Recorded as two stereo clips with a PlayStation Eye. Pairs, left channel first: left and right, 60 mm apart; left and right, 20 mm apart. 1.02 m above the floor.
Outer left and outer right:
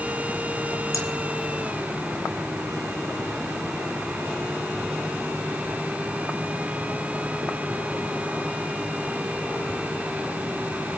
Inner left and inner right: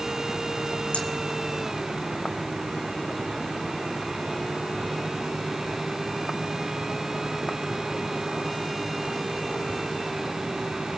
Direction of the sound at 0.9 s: 70° left (ahead or behind).